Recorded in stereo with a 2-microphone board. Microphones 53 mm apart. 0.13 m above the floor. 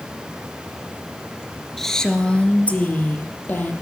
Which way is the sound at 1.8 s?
5° left (ahead or behind).